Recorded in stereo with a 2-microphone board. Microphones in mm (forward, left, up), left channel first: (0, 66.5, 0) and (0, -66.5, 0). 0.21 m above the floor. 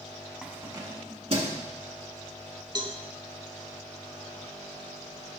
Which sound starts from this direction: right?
A cowbell, at 2.8 s.